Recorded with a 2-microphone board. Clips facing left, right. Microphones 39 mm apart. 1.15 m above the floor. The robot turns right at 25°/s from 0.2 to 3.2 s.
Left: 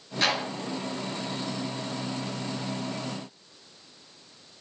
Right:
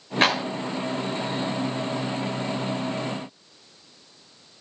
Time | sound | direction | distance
0.2 | a clap | 45° right (ahead or behind) | 2.0 m